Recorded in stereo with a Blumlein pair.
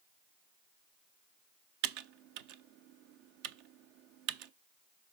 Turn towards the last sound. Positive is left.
turn(degrees=-45)